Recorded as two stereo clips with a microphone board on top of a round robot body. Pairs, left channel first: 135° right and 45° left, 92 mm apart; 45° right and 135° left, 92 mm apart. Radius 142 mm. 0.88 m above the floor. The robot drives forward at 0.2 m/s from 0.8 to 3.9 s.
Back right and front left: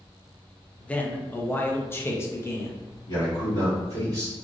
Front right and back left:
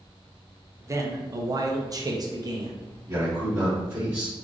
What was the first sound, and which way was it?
A man speaking, 160° left.